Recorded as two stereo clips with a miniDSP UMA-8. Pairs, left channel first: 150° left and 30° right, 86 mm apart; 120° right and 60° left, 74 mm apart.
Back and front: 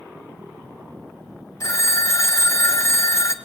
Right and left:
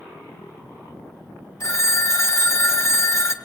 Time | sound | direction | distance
1.6 | a phone ringing | 160° right | 1.7 m